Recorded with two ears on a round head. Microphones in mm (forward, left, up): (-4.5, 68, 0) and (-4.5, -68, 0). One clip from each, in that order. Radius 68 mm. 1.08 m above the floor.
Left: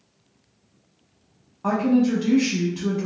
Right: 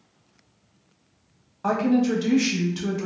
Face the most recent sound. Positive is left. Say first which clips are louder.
# left 1 dB
turn(degrees=-30)  # may be behind; listen again after turning